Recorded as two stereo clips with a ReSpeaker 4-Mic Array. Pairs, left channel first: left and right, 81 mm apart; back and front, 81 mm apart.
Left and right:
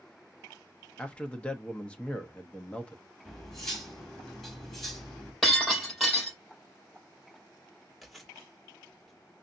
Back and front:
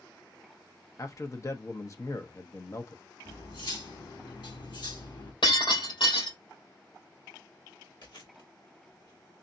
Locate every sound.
1.0 s a man speaking: 160° left, 0.9 m
3.2 s cutlery clinking: 175° left, 2.5 m
5.4 s breaking glass: straight behind, 4 m
8.0 s chewing: straight behind, 1.9 m